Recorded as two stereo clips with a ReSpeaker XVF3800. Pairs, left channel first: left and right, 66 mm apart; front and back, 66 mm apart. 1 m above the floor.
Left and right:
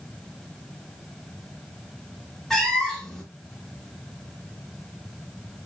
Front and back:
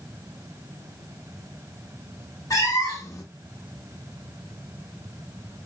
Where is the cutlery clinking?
I don't hear cutlery clinking.